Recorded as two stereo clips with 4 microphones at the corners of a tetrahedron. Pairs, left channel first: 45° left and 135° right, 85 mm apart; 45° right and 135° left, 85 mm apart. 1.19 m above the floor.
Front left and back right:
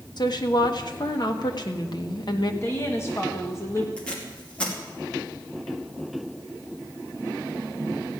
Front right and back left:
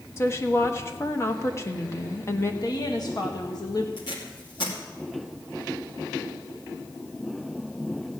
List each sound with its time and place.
0.2 s a woman speaking: 10° left, 1.2 m
2.6 s a woman speaking: 15° right, 1.6 m
4.0 s tape being pulled: 30° right, 2.5 m